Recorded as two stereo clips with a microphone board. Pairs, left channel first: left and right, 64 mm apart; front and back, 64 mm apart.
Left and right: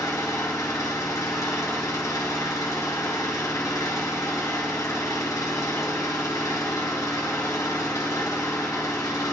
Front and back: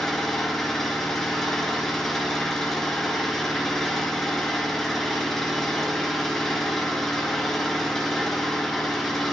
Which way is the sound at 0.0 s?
85° left.